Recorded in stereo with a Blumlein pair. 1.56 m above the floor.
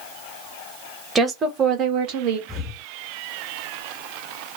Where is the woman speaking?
15° right, 1.1 m; by 2.4 s 45° right, 1.3 m.